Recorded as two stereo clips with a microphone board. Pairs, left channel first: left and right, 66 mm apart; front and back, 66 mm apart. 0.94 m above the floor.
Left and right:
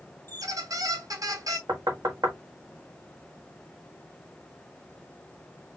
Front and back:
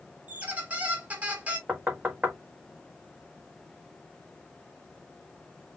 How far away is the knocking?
About 1.2 m.